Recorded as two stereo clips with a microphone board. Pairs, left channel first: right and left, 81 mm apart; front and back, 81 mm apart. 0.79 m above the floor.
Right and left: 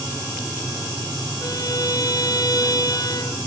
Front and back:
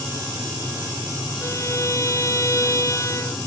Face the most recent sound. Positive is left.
turn(degrees=-50)